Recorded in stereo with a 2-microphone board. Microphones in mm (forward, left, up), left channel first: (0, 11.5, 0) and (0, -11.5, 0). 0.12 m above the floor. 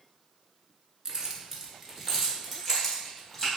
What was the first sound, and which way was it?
Keys jangling, 30° right (ahead or behind).